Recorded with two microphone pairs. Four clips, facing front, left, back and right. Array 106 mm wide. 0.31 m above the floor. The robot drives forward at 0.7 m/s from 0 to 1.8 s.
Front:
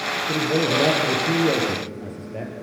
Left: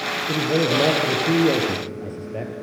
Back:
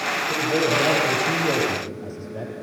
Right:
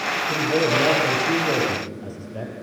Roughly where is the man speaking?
Ahead left.